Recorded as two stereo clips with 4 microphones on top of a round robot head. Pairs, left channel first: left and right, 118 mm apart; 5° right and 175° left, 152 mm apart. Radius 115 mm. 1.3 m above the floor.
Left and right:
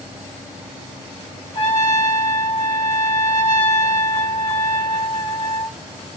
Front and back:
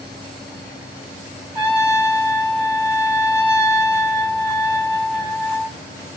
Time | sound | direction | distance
1.6 | a trumpet | 105° left | 1.0 m